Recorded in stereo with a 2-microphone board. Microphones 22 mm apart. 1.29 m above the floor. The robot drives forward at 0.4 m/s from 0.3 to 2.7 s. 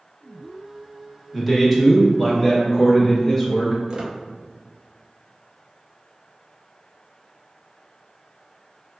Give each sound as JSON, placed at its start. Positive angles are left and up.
{"t": 1.3, "sound": "a man speaking", "side_deg": -5, "distance_m": 1.0}
{"t": 3.9, "sound": "a squeak", "side_deg": -40, "distance_m": 0.5}